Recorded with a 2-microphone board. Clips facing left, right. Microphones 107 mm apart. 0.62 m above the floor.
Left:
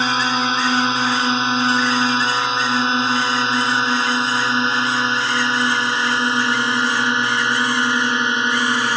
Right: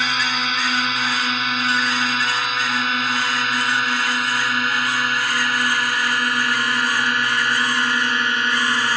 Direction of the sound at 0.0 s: 30° left (ahead or behind).